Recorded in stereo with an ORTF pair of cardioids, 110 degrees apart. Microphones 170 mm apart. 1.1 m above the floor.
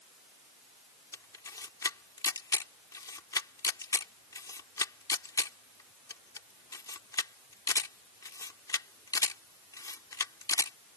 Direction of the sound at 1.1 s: 20° left.